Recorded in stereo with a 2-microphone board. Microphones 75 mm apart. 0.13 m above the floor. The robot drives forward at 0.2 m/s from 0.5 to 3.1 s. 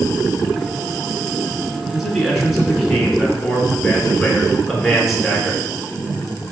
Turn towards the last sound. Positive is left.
turn(degrees=0)  # may be behind; listen again after turning